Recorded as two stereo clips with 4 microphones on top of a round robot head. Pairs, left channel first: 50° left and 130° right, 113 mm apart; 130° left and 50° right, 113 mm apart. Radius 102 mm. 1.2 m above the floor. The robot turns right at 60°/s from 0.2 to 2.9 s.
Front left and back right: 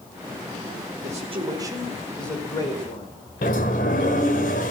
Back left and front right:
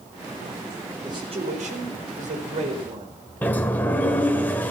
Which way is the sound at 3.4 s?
60° left.